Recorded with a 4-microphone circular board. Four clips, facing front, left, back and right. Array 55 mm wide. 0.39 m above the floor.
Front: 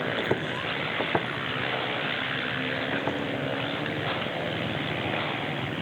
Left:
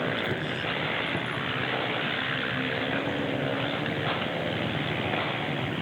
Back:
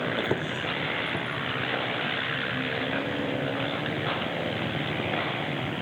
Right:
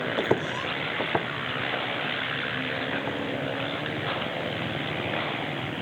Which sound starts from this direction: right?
Footsteps, at 0.2 s.